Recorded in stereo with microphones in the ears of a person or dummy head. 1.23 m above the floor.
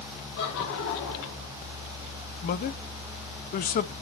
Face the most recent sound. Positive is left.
turn(degrees=40)  # may be behind; listen again after turning